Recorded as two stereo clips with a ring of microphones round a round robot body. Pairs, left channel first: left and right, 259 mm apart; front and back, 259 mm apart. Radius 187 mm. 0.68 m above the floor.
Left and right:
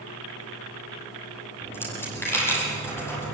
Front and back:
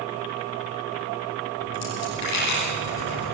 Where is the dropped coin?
10° left, 9 m.